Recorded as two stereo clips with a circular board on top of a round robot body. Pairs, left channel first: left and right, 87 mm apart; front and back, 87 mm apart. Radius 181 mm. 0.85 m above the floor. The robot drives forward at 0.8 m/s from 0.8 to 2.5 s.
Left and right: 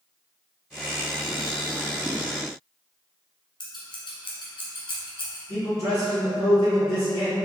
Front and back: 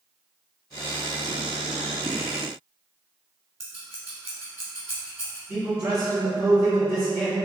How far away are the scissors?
About 1.1 m.